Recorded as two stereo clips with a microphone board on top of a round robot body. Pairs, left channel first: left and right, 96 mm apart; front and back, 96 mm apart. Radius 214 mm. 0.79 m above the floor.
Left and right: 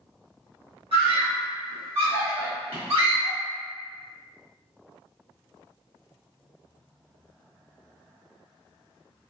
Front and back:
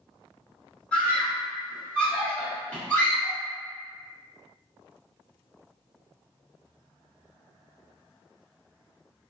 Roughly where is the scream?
Right.